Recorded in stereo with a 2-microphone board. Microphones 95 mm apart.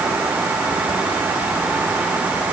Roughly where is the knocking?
I don't hear knocking.